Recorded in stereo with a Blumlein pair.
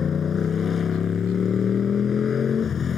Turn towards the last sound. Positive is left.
turn(degrees=20)